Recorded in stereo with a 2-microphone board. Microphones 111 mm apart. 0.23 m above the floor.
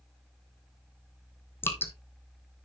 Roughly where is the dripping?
Centre.